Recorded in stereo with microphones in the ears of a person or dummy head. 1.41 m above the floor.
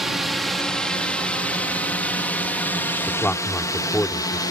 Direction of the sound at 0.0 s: Centre (ahead or behind).